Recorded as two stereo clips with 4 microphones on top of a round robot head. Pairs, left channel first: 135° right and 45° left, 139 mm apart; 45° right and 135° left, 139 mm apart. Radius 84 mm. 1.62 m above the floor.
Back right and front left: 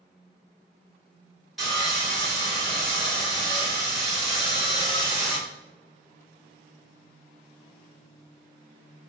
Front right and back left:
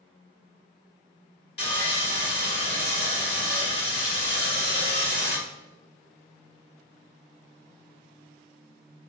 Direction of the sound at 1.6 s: 45° right.